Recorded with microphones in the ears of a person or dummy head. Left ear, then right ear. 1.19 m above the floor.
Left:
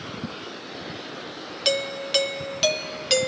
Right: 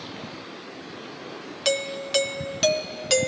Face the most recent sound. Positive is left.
turn(degrees=-10)  # may be behind; listen again after turning